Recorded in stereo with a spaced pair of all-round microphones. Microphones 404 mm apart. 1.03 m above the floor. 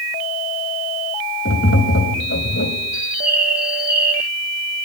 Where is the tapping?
35° left (ahead or behind), 3 m.